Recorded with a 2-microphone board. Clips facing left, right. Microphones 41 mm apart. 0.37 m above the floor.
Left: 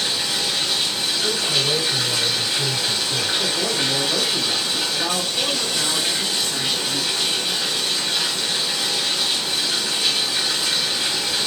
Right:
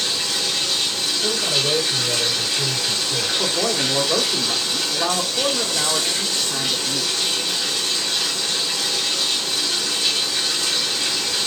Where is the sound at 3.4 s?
40° right (ahead or behind), 1.5 m.